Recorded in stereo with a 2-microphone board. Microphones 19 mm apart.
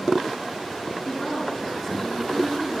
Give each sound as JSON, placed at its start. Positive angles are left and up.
{"t": 1.1, "sound": "a woman speaking", "side_deg": 15, "distance_m": 6.0}